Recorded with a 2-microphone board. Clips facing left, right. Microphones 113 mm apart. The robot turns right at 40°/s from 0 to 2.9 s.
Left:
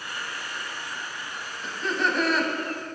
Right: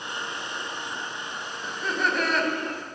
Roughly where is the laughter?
Centre.